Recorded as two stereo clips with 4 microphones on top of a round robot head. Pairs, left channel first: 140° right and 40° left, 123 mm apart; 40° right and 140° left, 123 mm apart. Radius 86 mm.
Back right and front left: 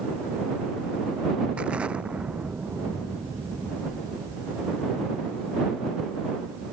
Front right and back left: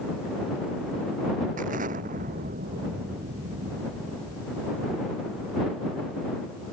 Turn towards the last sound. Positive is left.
turn(degrees=120)